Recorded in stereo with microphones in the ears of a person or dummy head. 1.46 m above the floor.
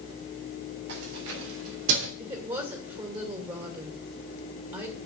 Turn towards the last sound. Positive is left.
turn(degrees=-25)  # may be behind; listen again after turning